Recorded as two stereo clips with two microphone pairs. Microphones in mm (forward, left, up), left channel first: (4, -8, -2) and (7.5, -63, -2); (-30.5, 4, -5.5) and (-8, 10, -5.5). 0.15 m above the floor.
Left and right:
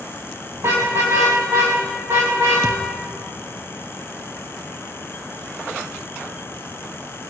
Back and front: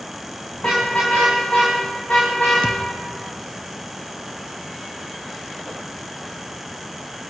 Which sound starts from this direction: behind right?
A car horn, at 0.6 s.